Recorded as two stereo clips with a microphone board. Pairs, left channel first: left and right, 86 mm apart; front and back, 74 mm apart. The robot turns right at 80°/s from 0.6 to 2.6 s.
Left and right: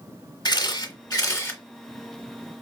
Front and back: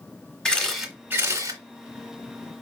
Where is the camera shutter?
80° left, 1.2 m; by 2.6 s 120° right, 1.2 m.